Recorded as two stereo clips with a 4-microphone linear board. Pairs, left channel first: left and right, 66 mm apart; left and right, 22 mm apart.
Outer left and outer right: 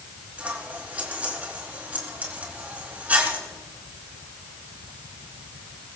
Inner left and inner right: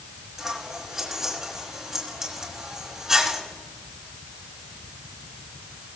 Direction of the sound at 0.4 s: 25° right (ahead or behind).